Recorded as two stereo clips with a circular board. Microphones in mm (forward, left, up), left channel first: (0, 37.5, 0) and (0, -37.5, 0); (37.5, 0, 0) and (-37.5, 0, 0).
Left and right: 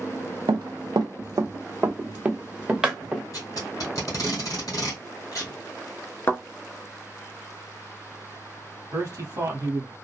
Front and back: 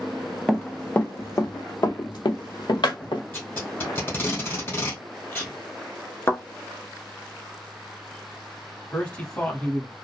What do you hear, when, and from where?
0.5 s running footsteps: 85° right, 0.8 m; by 3.2 s 5° right, 1.4 m
3.3 s tape being pulled: 55° left, 2 m
6.3 s a thud: 45° left, 0.6 m
8.9 s a man speaking: 65° right, 1.3 m